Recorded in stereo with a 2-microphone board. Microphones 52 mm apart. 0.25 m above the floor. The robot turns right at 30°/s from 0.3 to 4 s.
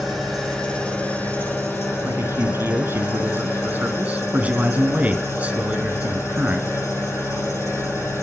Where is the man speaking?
95° right, 1.8 m; by 6.7 s 35° right, 1.8 m.